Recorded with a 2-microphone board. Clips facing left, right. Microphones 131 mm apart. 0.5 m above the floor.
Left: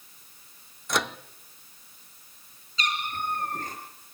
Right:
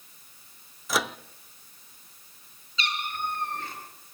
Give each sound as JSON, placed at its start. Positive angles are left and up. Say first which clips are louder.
{"t": 0.9, "sound": "a microwave", "louder": "even", "side_deg": -5, "distance_m": 0.5}
{"t": 2.8, "sound": "a cat meowing", "louder": "left 1 dB", "side_deg": 45, "distance_m": 4.0}